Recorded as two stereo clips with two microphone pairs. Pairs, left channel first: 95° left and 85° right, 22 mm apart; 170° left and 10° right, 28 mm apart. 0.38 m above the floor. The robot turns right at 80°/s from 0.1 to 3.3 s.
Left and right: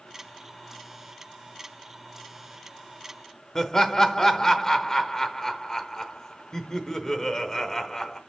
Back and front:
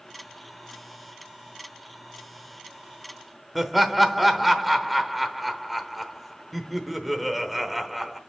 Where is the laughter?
80° left, 0.9 m.